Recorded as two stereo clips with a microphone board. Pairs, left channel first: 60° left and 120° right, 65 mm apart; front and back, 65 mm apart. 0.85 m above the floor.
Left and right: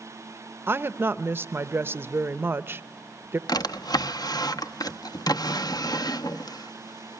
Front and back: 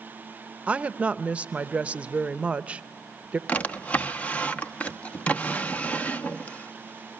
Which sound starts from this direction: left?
A drawer, at 3.5 s.